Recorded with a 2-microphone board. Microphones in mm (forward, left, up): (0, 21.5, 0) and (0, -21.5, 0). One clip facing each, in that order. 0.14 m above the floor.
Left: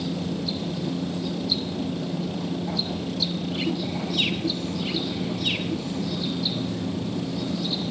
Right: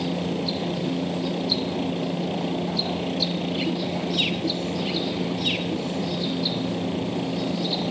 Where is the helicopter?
40° right (ahead or behind).